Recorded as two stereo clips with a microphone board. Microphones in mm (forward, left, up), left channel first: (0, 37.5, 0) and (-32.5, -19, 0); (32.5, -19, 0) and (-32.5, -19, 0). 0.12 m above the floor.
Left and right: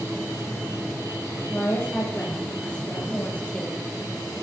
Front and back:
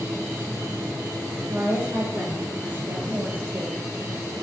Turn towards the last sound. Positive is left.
turn(degrees=130)